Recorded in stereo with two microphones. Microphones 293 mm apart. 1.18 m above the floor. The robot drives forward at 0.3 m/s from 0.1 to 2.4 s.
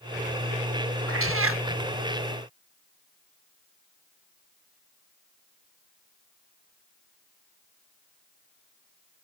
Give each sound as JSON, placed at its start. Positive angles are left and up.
{"t": 1.1, "sound": "a cat meowing", "side_deg": -50}